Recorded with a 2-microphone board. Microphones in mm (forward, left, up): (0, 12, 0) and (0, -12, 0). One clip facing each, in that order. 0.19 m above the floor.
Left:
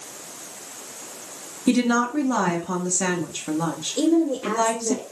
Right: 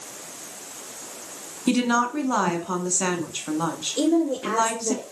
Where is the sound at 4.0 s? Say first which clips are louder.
Left 1 dB; 20° right (ahead or behind), 4 m.